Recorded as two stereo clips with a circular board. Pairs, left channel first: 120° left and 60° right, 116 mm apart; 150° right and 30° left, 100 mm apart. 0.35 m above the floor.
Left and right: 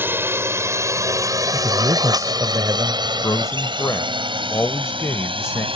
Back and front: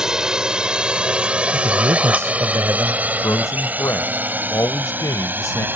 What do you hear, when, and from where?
0.0 s a drone: 45° right; by 5.8 s 40° right
1.5 s a man speaking: 20° right
3.0 s a man speaking: 170° left